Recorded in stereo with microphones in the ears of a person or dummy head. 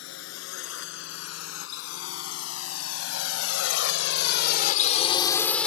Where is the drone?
75° left (ahead or behind); by 5.7 s centre (ahead or behind).